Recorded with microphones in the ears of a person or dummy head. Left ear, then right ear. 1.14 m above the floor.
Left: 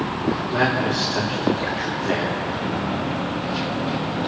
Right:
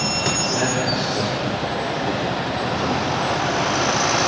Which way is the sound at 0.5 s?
45° left (ahead or behind).